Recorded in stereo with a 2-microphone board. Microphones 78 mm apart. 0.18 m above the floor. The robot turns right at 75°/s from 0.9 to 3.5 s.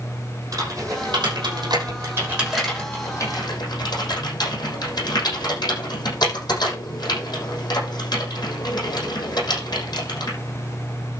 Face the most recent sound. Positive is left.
turn(degrees=60)  # may be behind; listen again after turning